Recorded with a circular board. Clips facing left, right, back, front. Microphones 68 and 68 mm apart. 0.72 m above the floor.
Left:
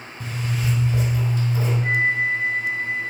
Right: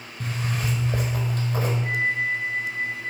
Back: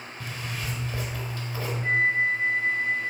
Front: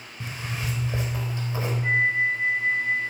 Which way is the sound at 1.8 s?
75° left.